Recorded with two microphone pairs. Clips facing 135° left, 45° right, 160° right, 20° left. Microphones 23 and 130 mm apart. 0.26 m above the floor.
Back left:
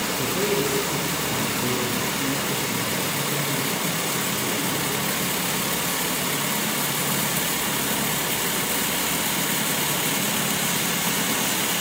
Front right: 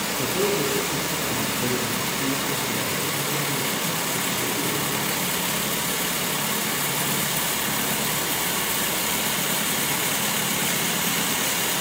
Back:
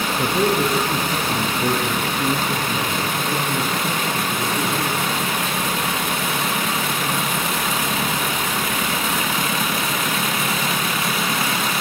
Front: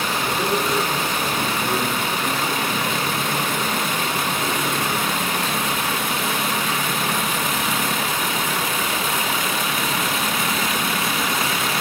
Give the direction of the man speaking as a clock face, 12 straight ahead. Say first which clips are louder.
Front right 1 dB, back 5 dB; 4 o'clock.